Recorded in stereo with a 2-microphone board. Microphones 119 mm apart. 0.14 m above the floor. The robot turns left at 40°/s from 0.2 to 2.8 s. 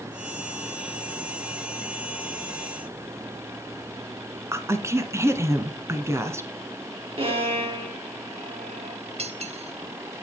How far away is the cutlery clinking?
About 1.4 m.